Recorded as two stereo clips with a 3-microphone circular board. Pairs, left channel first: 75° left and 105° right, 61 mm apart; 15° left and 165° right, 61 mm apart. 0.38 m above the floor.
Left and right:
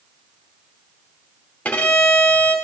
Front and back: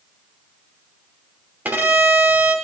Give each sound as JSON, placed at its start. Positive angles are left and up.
{"t": 1.6, "sound": "a violin", "azimuth_deg": 140, "distance_m": 1.9}